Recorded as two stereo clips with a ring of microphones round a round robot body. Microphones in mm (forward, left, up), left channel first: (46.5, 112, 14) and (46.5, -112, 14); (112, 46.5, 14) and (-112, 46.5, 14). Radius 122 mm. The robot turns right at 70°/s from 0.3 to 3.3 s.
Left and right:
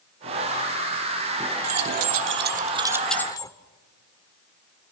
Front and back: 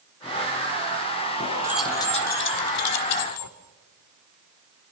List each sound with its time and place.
1.6 s keys jangling: 100° right, 1.8 m; by 3.5 s 15° left, 1.8 m